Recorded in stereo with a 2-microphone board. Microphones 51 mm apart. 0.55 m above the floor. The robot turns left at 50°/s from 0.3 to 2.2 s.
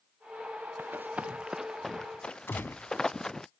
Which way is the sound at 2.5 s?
50° left (ahead or behind).